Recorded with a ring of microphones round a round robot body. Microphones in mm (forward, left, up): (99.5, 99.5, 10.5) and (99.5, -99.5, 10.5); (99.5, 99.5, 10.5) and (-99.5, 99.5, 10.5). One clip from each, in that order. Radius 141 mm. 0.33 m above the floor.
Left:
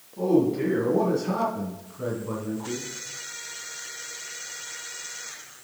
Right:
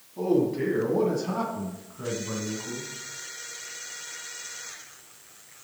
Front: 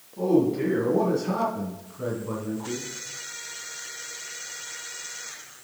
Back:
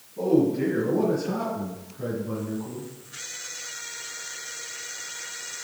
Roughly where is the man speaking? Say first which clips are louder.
Left 2 dB, even; ahead right.